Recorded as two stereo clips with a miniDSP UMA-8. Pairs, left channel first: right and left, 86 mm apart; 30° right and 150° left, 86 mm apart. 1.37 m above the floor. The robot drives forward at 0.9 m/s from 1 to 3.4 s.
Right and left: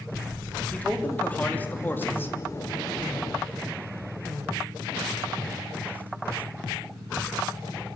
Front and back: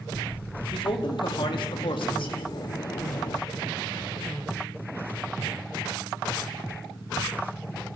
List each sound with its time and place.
0.7 s a man speaking: 20° right, 3.5 m; by 2.4 s 25° right, 2.5 m